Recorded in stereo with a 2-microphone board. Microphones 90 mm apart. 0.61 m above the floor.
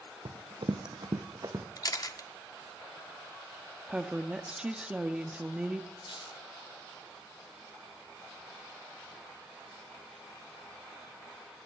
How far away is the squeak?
About 0.7 m.